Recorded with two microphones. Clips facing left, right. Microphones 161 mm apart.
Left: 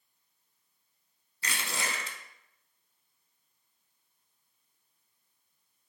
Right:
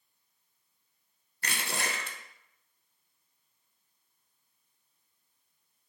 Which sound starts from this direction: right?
Crushing, at 1.4 s.